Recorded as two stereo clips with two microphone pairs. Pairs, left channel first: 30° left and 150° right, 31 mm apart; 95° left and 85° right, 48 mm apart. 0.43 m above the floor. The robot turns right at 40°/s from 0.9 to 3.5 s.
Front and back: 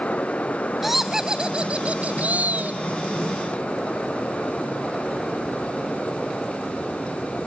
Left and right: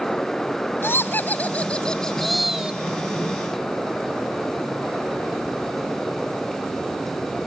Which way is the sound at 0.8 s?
130° left.